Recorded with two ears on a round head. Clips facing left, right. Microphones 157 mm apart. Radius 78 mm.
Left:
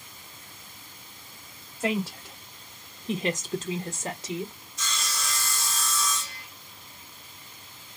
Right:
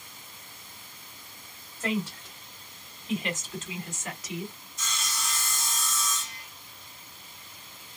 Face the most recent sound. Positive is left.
turn(degrees=60)  # may be behind; listen again after turning